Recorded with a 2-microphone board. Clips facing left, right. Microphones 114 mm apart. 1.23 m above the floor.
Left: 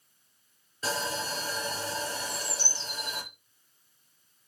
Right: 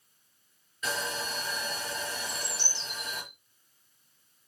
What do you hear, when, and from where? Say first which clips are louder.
0.8 s sawing: left 2 dB; 35° left (ahead or behind), 5 m
2.2 s a bird: left 2 dB; 10° left (ahead or behind), 4 m